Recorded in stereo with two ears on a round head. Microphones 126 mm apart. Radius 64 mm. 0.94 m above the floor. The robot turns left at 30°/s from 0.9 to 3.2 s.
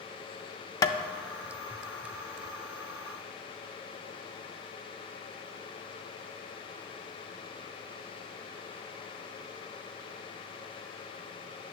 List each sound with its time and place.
0.8 s tapping: 25° left (ahead or behind), 0.6 m